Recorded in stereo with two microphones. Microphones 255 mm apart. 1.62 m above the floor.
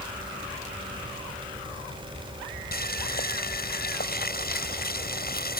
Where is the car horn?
No car horn in this recording.